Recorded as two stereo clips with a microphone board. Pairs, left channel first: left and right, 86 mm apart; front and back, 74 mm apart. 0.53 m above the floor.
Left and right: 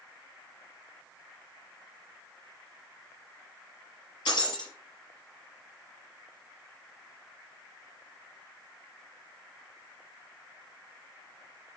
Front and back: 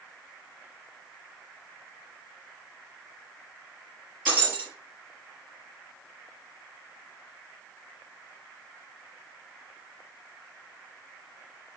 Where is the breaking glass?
115° left, 5 m.